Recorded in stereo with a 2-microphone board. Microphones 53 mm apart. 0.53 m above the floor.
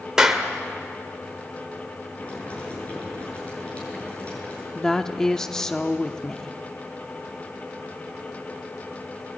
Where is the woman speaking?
10° left (ahead or behind), 0.7 m.